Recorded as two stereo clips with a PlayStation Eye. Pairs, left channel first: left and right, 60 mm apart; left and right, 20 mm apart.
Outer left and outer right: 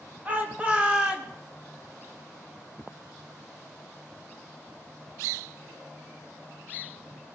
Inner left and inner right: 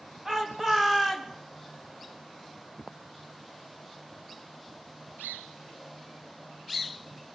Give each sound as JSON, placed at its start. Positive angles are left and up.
{"t": 0.2, "sound": "a shout", "side_deg": -25, "distance_m": 2.0}